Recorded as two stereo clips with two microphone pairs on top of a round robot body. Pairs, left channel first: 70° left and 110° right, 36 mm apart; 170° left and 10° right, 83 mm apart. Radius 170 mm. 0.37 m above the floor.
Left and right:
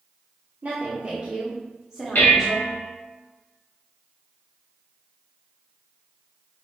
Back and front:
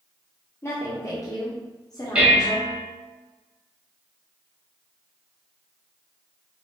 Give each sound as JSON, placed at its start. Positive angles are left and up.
{"t": 0.6, "sound": "a woman speaking", "azimuth_deg": -150, "distance_m": 1.2}
{"t": 2.1, "sound": "dishes clattering", "azimuth_deg": 70, "distance_m": 1.6}